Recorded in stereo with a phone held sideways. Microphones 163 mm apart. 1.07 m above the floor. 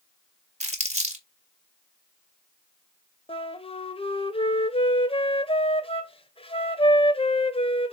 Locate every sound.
0.6 s crumpling: 45° right (ahead or behind), 2.5 m
3.3 s a flute: 35° left (ahead or behind), 1.1 m